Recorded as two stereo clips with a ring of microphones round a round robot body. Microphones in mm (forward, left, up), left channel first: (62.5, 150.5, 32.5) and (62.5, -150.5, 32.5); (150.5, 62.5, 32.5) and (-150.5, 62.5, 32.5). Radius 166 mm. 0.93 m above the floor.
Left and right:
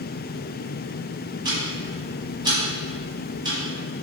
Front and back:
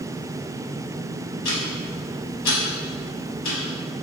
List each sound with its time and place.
1.4 s ticking: 20° right, 1.1 m